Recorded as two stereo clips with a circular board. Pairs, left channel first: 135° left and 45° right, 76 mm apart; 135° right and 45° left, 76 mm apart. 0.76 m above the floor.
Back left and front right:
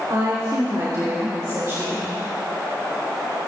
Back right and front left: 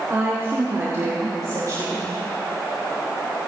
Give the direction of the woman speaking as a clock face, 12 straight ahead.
12 o'clock.